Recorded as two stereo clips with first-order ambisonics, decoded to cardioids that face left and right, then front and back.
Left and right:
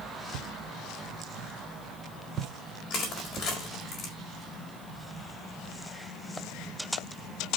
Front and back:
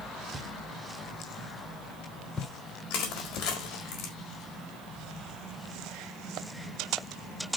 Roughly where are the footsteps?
Right.